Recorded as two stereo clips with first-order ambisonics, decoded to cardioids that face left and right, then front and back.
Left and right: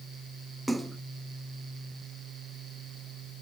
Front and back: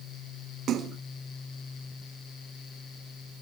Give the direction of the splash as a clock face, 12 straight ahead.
6 o'clock.